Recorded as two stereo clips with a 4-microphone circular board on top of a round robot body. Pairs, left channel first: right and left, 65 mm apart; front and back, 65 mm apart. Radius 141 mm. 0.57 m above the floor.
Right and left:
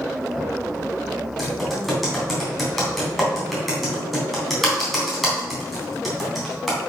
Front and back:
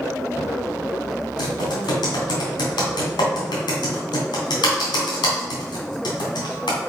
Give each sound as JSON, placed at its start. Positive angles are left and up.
{"t": 1.4, "sound": "typing on a keyboard", "azimuth_deg": 0, "distance_m": 3.0}